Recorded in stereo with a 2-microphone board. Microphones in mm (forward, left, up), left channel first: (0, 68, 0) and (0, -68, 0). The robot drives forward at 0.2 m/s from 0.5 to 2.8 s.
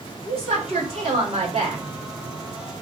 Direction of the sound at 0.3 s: 45° right (ahead or behind).